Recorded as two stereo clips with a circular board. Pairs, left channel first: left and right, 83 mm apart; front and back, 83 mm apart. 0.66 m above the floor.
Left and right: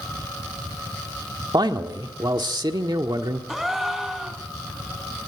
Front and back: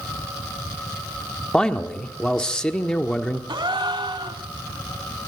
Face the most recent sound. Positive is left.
turn(degrees=-175)